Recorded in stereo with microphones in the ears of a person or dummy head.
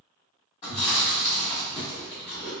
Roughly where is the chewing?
Left.